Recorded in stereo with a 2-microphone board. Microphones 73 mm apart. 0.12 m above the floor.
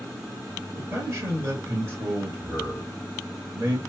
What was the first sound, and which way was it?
A man speaking, 35° right (ahead or behind).